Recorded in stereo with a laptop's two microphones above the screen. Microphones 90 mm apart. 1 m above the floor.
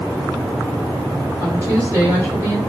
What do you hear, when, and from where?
1.4 s a woman speaking: 25° right (ahead or behind), 5 m